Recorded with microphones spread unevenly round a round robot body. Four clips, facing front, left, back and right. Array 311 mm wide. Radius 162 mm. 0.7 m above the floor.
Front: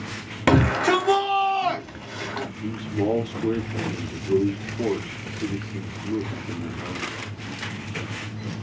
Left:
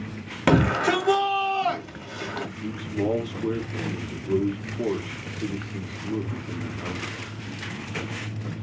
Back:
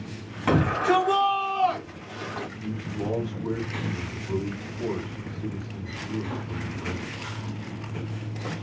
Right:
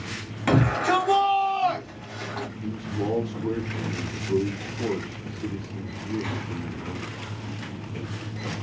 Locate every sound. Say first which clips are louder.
0.5 s a shout: left 1 dB, front 3 dB; 35° left, 1.4 m
2.6 s a man speaking: left 3 dB, front 8 dB; 25° left, 1.0 m